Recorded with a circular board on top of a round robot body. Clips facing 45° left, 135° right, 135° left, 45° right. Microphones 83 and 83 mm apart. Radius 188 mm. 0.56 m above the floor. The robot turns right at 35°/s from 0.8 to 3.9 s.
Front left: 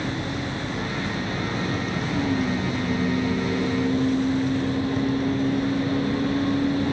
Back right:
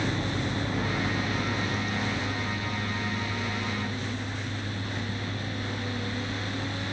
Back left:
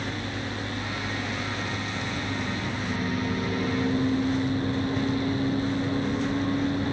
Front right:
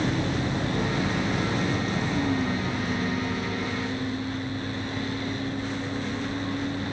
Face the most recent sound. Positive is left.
turn(degrees=60)